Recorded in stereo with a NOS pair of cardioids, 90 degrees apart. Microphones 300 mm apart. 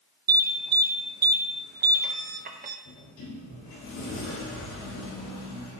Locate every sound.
0.3 s an alarm: 30° right, 0.9 m
2.9 s a sliding door: 65° left, 4 m